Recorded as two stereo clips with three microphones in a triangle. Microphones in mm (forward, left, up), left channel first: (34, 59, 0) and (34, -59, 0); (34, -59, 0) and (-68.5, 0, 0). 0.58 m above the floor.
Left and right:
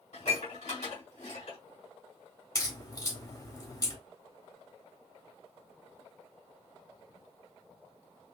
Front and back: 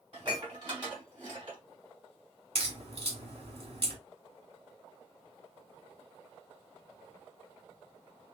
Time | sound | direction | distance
0.1 | dishes clattering | 105° left | 3 m
2.5 | a crack | 145° left | 2 m